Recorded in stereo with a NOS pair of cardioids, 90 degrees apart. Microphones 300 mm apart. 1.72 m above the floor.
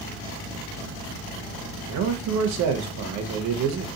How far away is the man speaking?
About 0.7 m.